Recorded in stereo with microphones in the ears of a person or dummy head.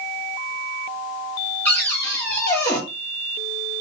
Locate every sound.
1.6 s a cupboard door: 15° left (ahead or behind), 1.0 m